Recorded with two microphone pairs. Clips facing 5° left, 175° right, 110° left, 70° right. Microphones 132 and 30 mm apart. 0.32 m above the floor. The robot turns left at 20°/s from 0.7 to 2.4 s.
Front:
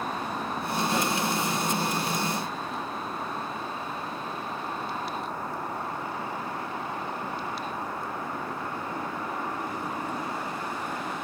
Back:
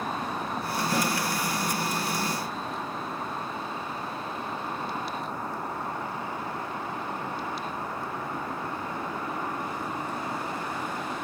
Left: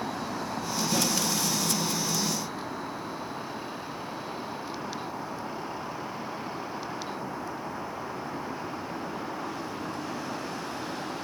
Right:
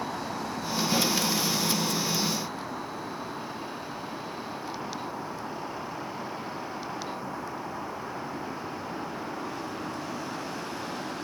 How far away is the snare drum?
About 1.5 m.